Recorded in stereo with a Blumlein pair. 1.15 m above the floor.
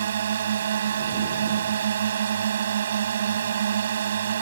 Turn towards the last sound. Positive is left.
turn(degrees=-65)